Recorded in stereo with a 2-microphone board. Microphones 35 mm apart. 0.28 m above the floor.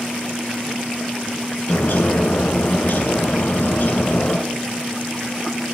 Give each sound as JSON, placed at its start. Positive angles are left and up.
{"t": 1.7, "sound": "a bird", "side_deg": 70, "distance_m": 1.3}